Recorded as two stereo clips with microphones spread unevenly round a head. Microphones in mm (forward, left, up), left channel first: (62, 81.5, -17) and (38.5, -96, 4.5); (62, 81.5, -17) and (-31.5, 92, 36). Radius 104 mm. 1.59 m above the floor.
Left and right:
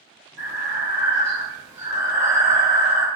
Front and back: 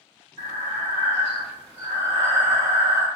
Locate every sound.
0.4 s breathing: 165° right, 1.2 m